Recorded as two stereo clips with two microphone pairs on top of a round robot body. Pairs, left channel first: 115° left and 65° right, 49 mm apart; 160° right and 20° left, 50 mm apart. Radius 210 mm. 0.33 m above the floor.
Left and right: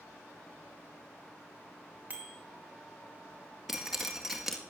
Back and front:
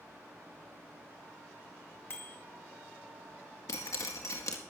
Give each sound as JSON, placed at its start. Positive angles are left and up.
{"t": 2.1, "sound": "a bicycle bell", "azimuth_deg": -120, "distance_m": 2.5}
{"t": 3.7, "sound": "dripping", "azimuth_deg": -150, "distance_m": 1.7}